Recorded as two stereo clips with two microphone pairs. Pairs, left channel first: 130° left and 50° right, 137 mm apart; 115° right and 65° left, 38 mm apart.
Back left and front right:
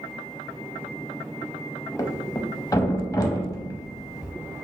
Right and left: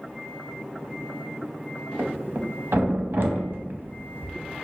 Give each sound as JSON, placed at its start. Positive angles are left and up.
{"t": 2.0, "sound": "a thud", "azimuth_deg": 70, "distance_m": 0.6}